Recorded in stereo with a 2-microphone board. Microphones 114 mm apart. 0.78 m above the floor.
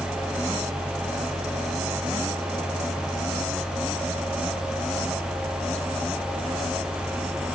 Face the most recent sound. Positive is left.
No sound to turn to.